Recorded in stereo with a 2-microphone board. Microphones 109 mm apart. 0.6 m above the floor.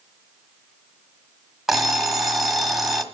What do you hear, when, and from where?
1.7 s an alarm clock: centre (ahead or behind), 1.3 m